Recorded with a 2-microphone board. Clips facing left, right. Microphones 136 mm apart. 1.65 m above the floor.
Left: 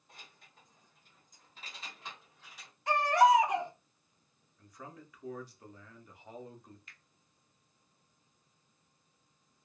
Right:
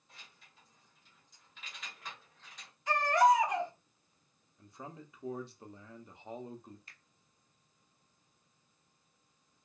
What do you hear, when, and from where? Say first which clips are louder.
0.1 s keys jangling: left 3 dB; 45° left (ahead or behind), 1.2 m; by 2.7 s 5° left (ahead or behind), 1.0 m
2.9 s a baby crying: left 2 dB; 60° left (ahead or behind), 1.8 m
4.6 s a man speaking: right 2 dB; 25° right (ahead or behind), 0.6 m
6.9 s a finger snap: left 1 dB; 35° right (ahead or behind), 0.5 m